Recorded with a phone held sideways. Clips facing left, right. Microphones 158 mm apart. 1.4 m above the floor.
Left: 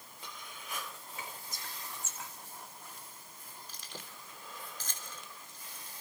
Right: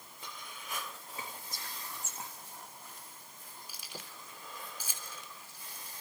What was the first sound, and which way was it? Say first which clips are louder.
Whispering: right 1 dB; 35° right (ahead or behind).